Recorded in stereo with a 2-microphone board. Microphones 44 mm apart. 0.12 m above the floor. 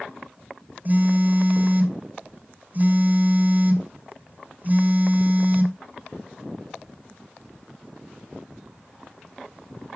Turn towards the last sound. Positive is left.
turn(degrees=-45)  # may be behind; listen again after turning